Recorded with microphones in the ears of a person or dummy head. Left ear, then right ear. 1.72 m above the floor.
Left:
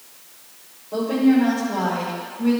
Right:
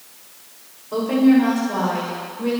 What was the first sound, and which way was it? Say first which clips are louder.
A woman speaking: right 2 dB; 60° right (ahead or behind).